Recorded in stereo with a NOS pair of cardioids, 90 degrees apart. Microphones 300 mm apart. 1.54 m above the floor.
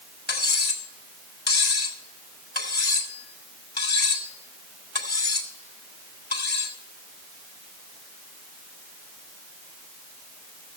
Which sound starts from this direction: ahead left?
Cutlery clinking, at 0.3 s.